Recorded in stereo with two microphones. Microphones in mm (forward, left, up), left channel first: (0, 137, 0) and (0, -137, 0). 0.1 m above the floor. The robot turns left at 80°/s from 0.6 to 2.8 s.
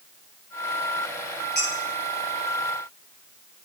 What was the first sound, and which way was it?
Dishes clattering, 35° left (ahead or behind).